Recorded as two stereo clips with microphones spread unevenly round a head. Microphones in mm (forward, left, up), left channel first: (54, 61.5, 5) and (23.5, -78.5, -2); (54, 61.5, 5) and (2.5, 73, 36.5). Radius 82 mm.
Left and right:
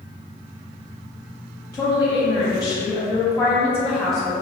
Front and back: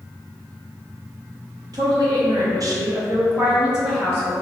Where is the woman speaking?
150° left, 1.1 m; by 4.3 s 10° right, 0.7 m.